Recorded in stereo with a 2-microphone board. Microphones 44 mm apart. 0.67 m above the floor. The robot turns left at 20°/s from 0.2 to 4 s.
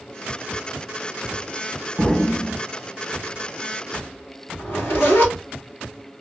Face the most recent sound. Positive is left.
turn(degrees=50)  # may be behind; listen again after turning